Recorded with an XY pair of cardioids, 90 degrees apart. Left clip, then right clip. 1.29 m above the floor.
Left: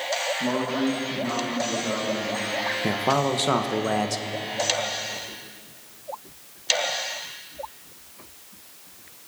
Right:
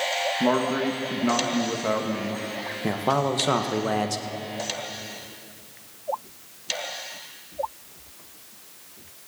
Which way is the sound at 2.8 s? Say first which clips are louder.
Right 1 dB; 5° left.